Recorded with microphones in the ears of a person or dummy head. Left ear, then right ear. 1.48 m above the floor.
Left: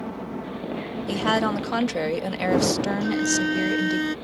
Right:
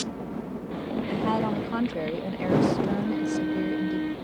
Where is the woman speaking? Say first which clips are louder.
Left 5 dB; 60° left (ahead or behind).